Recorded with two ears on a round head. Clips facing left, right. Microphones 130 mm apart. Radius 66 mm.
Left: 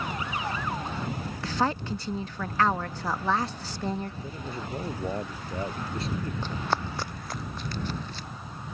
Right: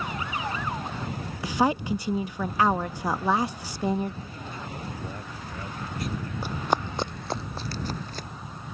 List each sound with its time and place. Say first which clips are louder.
1.4 s a woman speaking: right 4 dB; 10° right (ahead or behind)
4.2 s a man speaking: left 2 dB; 25° left (ahead or behind)
6.4 s running footsteps: right 6 dB; 10° right (ahead or behind); by 8.3 s 40° right (ahead or behind)